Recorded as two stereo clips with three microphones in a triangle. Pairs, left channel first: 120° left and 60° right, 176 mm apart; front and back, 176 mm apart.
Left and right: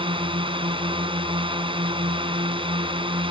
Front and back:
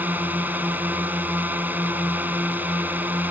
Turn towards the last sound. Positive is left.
turn(degrees=-105)